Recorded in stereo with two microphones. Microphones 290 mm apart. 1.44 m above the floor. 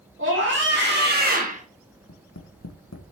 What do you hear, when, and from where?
0.2 s a scream: 40° right (ahead or behind), 3 m; by 1.6 s 25° right (ahead or behind), 1.4 m
2.1 s tapping: 55° left (ahead or behind), 0.9 m